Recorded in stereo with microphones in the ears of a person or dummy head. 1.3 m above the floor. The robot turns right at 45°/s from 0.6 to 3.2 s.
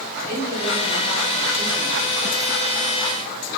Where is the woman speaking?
140° left, 3 m; by 2.0 s 155° right, 3 m.